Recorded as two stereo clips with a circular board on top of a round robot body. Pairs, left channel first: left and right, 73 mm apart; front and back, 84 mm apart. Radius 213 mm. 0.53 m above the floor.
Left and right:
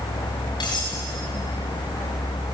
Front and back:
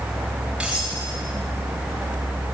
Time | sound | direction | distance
0.6 | cutlery clinking | 100° left | 7.5 m